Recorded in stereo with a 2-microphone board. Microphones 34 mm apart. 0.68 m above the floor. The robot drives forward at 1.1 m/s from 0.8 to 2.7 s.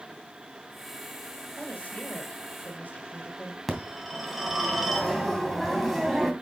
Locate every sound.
1.6 s a woman speaking: 50° left (ahead or behind), 3 m; by 3.6 s 70° left (ahead or behind), 2.5 m
3.7 s a phone ringing: centre (ahead or behind), 2.5 m